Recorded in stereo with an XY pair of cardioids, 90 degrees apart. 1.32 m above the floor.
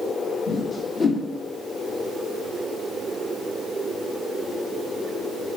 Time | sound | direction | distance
0.5 | a whoosh | 50° left | 1.4 m